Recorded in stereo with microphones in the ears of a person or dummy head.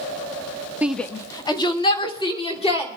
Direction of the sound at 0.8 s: 5° right (ahead or behind).